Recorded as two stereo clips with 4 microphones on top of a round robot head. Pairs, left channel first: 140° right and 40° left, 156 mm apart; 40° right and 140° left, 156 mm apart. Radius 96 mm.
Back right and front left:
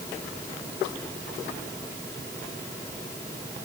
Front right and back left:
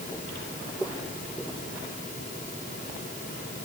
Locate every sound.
Only background noise.